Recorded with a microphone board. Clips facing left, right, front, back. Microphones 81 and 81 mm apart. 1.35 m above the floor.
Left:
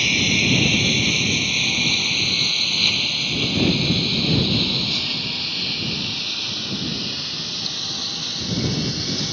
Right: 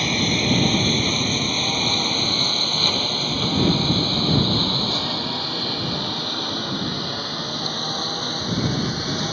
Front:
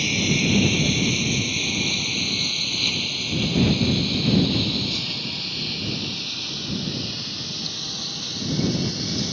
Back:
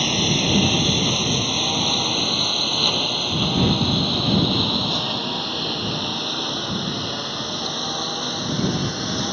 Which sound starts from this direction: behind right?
A lawn mower, at 0.0 s.